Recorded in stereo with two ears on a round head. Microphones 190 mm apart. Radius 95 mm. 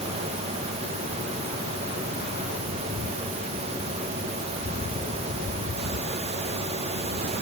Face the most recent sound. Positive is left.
No sound to turn to.